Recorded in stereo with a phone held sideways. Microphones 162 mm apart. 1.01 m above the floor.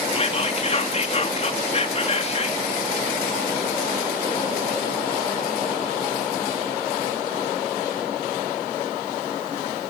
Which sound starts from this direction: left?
Whispering, at 0.1 s.